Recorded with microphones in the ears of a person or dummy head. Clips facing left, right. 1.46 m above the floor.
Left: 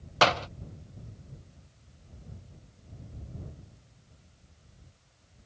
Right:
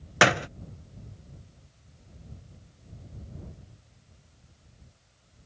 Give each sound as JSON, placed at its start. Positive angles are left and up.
{"t": 0.2, "sound": "a door slam", "side_deg": -25}